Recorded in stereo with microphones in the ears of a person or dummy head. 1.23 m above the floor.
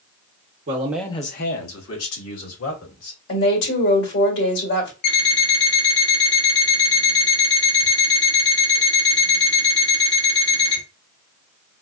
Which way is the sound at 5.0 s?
60° left (ahead or behind).